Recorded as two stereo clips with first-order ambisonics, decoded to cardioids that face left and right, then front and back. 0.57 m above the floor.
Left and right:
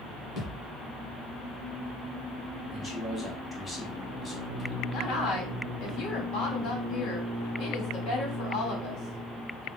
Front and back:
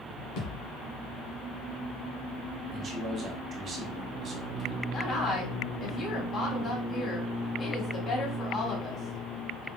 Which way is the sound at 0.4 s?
20° left.